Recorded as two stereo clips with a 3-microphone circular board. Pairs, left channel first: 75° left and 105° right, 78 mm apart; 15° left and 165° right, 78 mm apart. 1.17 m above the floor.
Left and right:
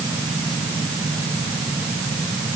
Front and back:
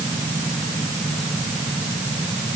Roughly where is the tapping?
I don't hear tapping.